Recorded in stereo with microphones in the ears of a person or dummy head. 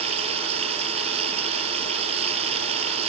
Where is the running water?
35° right (ahead or behind).